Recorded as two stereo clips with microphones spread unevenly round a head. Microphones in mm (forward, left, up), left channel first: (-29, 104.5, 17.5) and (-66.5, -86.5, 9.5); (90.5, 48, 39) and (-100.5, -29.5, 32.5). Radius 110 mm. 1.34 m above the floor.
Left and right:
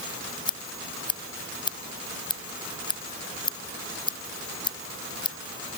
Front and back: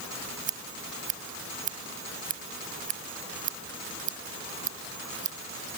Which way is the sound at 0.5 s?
145° left.